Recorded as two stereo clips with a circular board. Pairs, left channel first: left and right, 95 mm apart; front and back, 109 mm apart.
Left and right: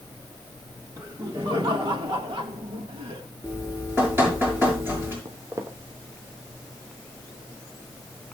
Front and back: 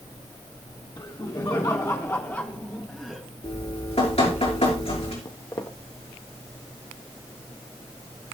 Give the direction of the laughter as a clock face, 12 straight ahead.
1 o'clock.